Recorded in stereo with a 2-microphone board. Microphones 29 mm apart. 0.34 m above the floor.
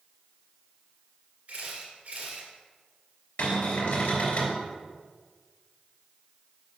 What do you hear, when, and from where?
1.5 s a camera shutter: 50° right (ahead or behind), 1.9 m
3.4 s a cupboard door: 75° left (ahead or behind), 3 m